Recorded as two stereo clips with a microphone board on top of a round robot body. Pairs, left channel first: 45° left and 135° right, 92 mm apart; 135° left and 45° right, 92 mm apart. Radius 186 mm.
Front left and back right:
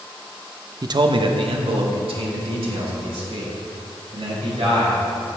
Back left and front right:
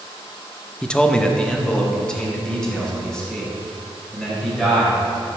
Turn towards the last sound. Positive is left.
turn(degrees=-145)